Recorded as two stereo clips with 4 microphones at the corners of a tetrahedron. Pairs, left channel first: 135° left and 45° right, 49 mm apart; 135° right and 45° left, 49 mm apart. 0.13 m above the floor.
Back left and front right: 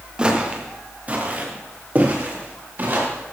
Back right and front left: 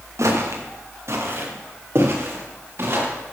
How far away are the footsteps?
About 2.5 m.